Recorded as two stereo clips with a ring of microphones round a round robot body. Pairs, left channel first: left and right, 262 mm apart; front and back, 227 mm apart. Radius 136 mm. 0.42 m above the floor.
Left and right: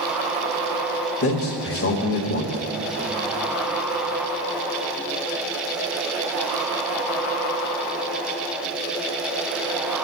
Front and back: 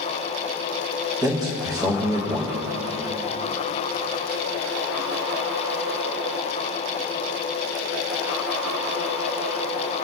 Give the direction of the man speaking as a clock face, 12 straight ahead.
8 o'clock.